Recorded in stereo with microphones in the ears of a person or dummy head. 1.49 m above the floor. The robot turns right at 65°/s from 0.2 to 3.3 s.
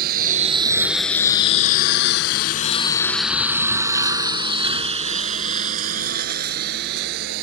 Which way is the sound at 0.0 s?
55° right (ahead or behind).